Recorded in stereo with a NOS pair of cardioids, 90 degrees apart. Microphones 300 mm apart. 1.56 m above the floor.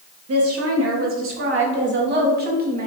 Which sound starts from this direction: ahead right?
A woman speaking, at 0.3 s.